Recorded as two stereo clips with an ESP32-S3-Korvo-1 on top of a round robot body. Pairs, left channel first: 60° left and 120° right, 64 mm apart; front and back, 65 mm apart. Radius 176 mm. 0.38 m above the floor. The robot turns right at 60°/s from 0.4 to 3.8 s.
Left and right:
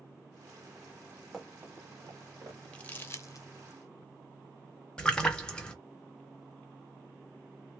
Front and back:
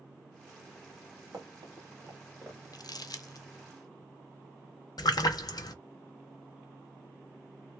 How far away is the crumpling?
About 0.7 m.